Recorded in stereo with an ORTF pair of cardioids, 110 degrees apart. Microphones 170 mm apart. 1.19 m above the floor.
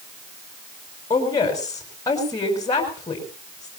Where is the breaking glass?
No breaking glass in this recording.